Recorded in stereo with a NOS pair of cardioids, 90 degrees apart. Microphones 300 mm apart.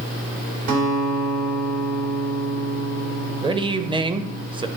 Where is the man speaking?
15° right, 0.7 m.